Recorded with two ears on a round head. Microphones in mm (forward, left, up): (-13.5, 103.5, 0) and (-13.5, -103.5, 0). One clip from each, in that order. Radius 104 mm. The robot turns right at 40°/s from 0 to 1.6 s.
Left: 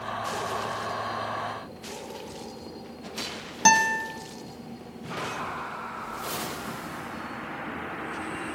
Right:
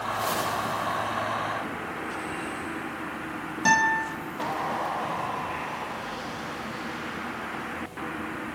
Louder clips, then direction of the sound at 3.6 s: Left 1 dB; 35° left (ahead or behind).